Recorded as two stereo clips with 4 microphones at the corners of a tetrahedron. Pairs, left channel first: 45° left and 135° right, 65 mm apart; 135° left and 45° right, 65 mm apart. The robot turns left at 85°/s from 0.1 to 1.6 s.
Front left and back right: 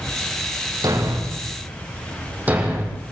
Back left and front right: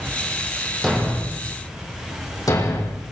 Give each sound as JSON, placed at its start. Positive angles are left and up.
{"t": 0.8, "sound": "a thud", "azimuth_deg": -135, "distance_m": 7.0}